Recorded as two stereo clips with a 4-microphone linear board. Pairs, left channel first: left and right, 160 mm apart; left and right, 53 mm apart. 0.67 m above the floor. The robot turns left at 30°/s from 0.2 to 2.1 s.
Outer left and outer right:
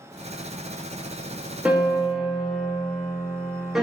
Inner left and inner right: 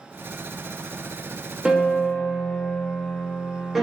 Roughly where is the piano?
Centre.